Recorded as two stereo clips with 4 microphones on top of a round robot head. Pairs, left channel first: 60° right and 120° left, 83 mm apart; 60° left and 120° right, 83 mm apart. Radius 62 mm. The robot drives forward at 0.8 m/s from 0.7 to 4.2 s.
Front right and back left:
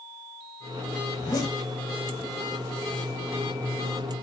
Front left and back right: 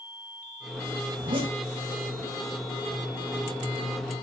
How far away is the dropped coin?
I don't hear a dropped coin.